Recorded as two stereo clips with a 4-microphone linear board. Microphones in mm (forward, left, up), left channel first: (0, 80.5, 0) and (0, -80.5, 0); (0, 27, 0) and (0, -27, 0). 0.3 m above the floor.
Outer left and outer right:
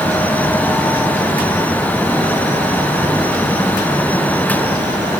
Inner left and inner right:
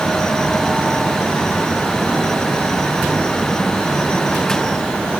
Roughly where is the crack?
No crack in this recording.